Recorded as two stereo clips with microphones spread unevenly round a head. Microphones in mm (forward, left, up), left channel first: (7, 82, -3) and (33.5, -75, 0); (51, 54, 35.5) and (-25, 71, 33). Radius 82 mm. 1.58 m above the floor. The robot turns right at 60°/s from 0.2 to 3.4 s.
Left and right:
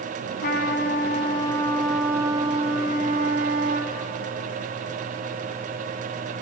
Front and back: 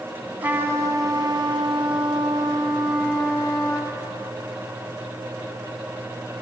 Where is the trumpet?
105° left, 2.5 m; by 3.9 s 80° right, 2.5 m.